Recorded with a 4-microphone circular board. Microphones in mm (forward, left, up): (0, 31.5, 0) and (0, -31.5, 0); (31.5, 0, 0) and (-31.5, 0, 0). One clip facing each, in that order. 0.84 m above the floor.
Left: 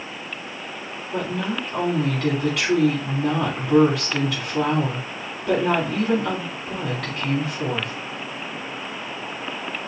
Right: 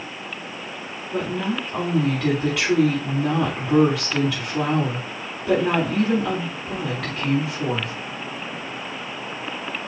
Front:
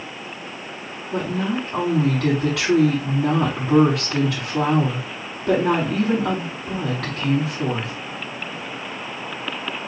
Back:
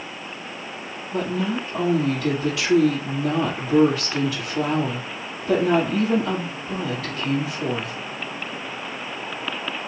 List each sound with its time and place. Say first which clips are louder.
1.1 s a woman speaking: right 1 dB, front 1 dB; straight ahead, 3.5 m